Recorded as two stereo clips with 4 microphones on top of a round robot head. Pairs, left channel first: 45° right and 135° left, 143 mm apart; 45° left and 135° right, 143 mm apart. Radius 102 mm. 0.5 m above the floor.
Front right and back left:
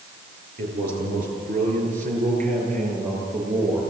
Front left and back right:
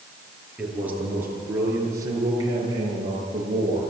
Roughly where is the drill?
No drill in this recording.